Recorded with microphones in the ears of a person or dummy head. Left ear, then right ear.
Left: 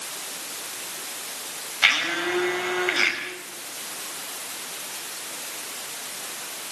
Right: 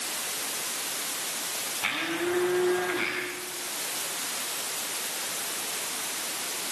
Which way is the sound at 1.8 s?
70° left (ahead or behind).